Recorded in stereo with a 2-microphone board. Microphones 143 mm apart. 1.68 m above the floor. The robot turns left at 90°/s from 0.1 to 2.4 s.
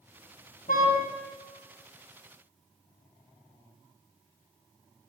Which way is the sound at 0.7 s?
75° left (ahead or behind).